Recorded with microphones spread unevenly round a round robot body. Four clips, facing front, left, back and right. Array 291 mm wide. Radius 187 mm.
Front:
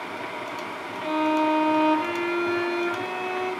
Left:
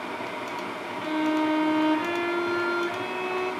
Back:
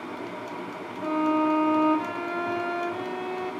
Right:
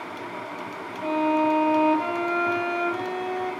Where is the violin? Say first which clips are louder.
Right 3 dB, front 1 dB; 130° right, 1.2 m.